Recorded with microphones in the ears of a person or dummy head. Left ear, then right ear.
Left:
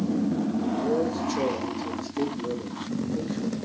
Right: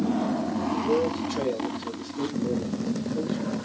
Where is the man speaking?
85° left, 4.5 m.